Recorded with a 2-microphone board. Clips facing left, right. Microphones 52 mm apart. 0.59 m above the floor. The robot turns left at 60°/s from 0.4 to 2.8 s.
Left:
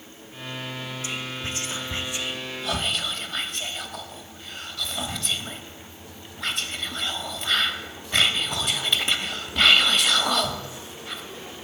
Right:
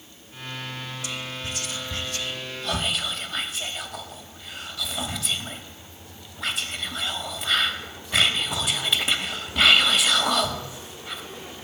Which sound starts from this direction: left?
Whispering, at 1.0 s.